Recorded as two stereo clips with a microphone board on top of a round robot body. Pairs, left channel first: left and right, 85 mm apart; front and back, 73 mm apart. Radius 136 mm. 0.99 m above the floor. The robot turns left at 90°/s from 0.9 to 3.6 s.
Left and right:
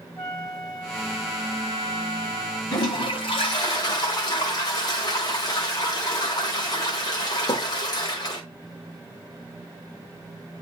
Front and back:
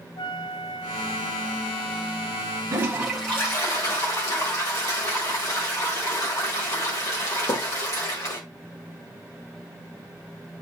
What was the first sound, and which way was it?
A flute, 10° left.